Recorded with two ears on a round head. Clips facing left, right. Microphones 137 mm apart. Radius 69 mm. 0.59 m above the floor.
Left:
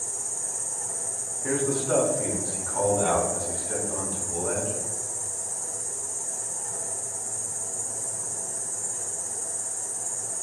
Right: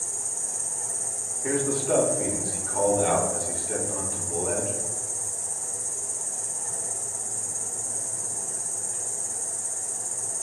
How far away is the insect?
About 1.3 m.